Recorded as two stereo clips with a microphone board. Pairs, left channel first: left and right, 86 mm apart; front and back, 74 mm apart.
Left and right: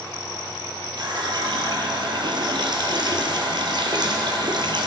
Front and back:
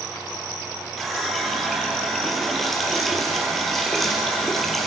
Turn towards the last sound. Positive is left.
turn(degrees=-85)